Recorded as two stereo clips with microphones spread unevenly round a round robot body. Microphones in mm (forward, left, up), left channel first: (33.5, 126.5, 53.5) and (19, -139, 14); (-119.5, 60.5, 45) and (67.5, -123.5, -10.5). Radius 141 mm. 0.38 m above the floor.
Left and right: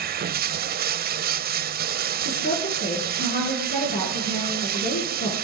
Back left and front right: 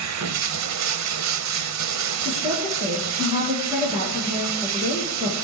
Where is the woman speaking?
35° left, 7.5 m.